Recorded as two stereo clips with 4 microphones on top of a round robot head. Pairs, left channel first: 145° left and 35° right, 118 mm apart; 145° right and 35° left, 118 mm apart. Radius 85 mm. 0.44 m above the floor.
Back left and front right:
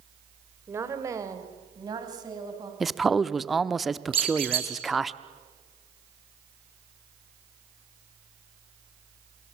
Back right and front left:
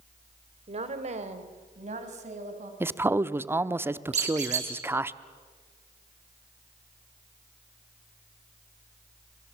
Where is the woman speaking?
30° left, 2.5 m; by 2.7 s 20° left, 5 m.